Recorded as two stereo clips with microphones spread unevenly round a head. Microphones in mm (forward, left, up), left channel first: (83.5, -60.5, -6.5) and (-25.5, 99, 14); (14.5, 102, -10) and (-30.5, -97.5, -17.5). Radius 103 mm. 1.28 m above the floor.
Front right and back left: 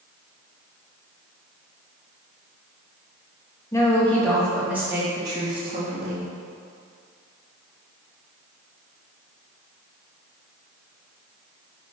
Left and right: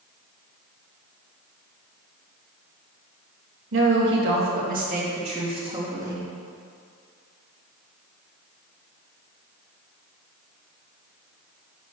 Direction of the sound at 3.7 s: 130° right.